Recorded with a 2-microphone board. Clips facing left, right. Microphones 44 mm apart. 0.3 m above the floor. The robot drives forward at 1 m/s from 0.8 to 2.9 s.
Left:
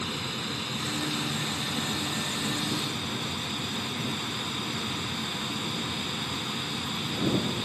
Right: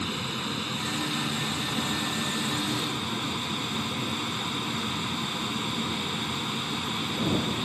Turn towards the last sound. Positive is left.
turn(degrees=-20)  # may be behind; listen again after turning